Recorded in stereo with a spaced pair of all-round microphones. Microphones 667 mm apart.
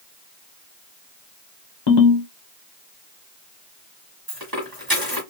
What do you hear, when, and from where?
1.9 s a ringtone: 40° left (ahead or behind), 0.8 m
4.3 s a dropped coin: 30° right (ahead or behind), 1.6 m